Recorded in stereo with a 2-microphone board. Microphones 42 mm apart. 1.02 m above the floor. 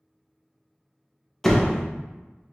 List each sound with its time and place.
1.4 s a door slam: 10° left (ahead or behind), 0.6 m